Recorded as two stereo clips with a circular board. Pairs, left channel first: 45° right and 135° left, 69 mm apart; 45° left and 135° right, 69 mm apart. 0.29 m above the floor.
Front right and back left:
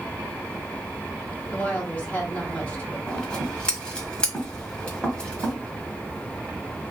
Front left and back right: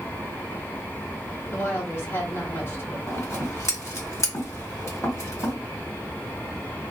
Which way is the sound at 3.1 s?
25° left.